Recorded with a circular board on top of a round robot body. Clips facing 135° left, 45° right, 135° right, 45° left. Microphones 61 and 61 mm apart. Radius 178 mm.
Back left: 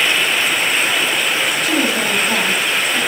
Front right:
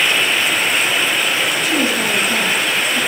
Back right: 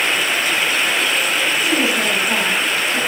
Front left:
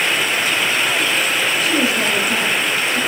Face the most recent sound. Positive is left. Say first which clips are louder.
# even, even
turn(degrees=165)